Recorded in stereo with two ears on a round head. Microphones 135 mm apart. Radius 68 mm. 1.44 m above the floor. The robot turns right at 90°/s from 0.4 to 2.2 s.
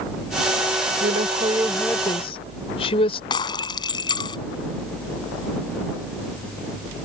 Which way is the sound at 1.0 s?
70° right.